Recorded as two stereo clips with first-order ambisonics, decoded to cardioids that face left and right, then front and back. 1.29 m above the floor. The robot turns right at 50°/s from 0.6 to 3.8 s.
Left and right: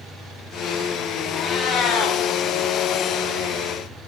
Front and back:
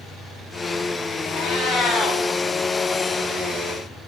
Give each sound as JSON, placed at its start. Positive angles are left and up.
{"t": 1.3, "sound": "a cat meowing", "azimuth_deg": 30, "distance_m": 3.0}